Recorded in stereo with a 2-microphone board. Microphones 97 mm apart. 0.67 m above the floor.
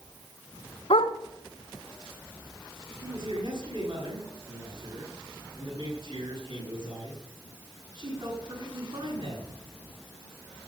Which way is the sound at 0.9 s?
85° left.